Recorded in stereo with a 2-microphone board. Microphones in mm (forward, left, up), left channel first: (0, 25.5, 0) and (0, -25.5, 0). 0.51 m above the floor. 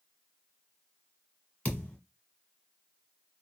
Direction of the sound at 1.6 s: 25° left (ahead or behind).